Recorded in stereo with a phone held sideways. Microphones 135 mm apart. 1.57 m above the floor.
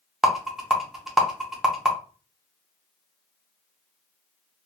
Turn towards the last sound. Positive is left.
turn(degrees=-5)  # may be behind; listen again after turning